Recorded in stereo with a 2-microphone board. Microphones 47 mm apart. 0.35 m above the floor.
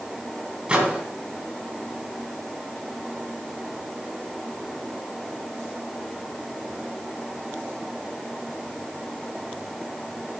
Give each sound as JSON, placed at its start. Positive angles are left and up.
{"t": 0.7, "sound": "a microwave", "side_deg": -25, "distance_m": 2.0}